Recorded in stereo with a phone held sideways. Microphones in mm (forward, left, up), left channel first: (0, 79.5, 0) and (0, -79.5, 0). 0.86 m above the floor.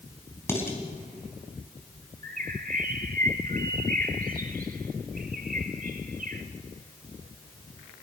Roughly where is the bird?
Right.